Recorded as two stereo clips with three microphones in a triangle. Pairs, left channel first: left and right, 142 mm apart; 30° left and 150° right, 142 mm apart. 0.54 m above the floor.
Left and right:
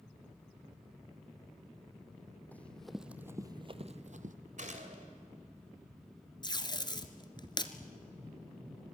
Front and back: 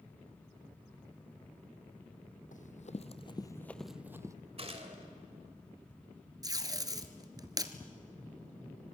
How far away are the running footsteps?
About 1.3 m.